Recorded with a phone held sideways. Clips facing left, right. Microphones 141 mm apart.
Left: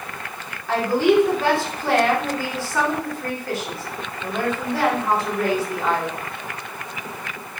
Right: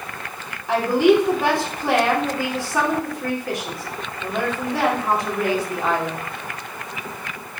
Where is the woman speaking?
15° right (ahead or behind), 3.5 m.